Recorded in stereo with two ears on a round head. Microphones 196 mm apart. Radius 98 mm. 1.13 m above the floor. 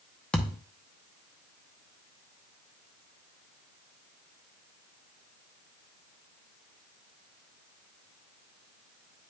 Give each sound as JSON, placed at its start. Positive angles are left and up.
{"t": 0.3, "sound": "a thud", "side_deg": 5, "distance_m": 0.8}